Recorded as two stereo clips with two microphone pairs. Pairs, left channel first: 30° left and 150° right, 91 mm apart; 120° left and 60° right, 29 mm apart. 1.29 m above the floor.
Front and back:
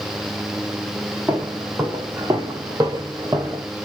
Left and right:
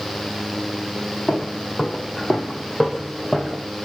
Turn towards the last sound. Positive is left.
turn(degrees=-150)